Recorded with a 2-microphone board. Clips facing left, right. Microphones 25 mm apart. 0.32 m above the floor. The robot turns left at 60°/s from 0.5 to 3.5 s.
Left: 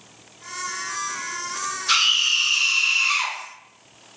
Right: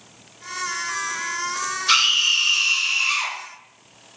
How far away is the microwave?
I don't hear a microwave.